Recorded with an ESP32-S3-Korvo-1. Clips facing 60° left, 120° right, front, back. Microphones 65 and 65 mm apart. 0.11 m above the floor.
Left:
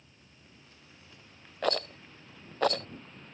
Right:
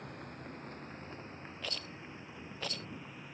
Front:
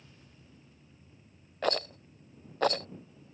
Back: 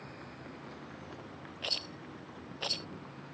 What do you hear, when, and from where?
0.0 s a vehicle: 145° right; by 3.4 s 160° left
1.6 s a rattle: 35° left